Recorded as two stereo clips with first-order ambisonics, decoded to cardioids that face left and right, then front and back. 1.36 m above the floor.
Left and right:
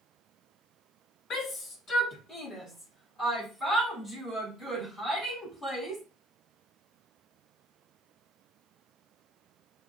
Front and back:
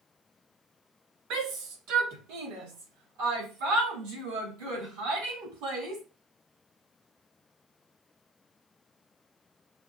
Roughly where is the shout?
Behind left.